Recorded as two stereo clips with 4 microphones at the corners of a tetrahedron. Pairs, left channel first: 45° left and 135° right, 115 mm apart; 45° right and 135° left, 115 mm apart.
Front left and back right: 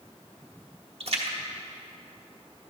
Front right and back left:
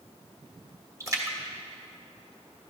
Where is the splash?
165° right, 1.2 m.